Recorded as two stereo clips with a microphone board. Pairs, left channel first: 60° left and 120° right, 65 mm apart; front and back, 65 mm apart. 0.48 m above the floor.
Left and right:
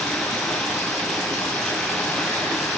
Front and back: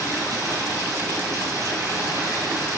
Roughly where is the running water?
Behind left.